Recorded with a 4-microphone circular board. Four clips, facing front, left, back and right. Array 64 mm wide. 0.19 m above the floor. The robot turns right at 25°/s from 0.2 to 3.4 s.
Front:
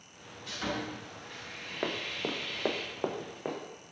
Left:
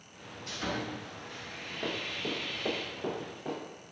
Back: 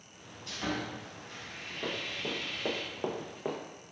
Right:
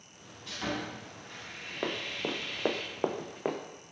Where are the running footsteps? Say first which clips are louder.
Right 2 dB, front 3 dB; 40° right, 0.7 m; by 3.6 s 90° right, 0.7 m.